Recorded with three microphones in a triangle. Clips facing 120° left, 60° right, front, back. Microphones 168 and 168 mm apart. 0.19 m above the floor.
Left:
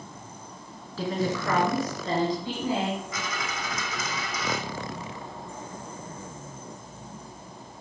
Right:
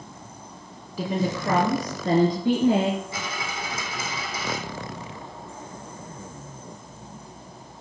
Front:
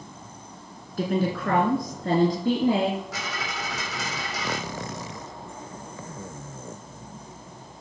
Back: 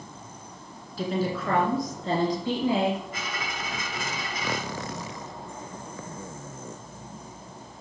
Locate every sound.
1.0 s a woman speaking: 15° left, 2.5 m; by 3.0 s 45° right, 4 m
3.1 s a dropped coin: straight ahead, 4.5 m